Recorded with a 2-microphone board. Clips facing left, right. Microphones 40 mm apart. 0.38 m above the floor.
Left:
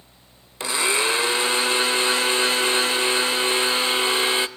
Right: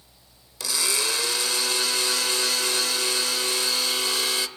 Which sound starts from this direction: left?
A blender, at 0.6 s.